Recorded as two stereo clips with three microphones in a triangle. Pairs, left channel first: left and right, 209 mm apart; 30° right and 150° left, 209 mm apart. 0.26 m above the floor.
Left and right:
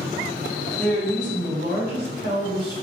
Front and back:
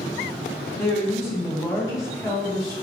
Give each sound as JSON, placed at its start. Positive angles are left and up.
{"t": 0.8, "sound": "a woman speaking", "azimuth_deg": -95, "distance_m": 1.5}